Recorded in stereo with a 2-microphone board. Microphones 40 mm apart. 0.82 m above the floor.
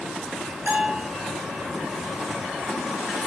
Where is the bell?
60° right (ahead or behind), 4 m.